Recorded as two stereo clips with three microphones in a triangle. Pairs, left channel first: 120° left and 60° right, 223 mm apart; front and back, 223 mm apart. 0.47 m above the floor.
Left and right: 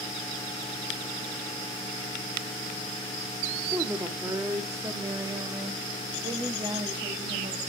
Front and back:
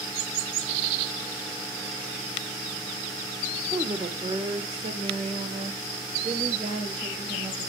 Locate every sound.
3.7 s a woman speaking: 130° right, 1.3 m; by 7.7 s 125° right, 3 m